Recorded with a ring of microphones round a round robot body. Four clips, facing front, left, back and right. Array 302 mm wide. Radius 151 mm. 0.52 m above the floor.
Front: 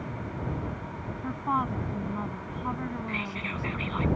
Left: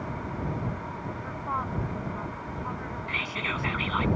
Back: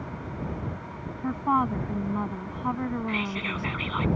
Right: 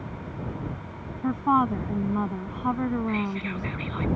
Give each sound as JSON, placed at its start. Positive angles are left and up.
{"t": 1.2, "sound": "a woman speaking", "azimuth_deg": -115}
{"t": 3.1, "sound": "whispering", "azimuth_deg": 120}